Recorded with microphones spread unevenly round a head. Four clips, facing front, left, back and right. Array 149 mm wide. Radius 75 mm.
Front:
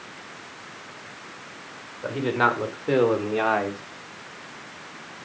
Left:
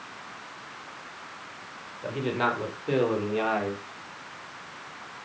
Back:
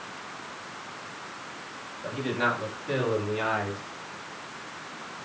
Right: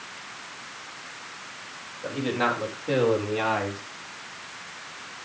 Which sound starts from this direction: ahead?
A man speaking, at 2.0 s.